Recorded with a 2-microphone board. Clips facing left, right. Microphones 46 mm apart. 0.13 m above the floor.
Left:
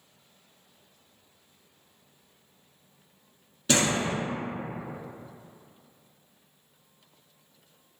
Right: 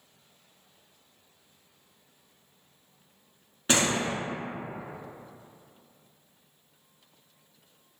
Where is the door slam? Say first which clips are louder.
Left 1 dB; 30° right (ahead or behind), 1.2 m.